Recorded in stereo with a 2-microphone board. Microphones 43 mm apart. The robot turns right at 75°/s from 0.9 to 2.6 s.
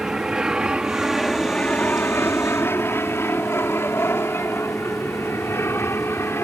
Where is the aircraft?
15° right (ahead or behind); by 6.5 s 70° left (ahead or behind).